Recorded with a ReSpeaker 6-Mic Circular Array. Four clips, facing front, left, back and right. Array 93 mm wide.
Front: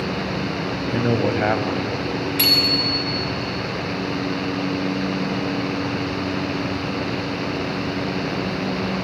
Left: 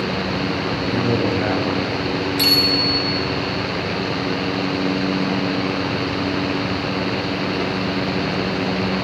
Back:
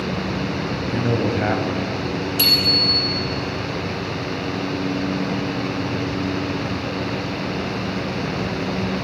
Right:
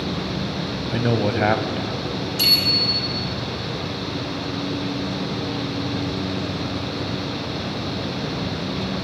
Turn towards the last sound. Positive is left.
turn(degrees=25)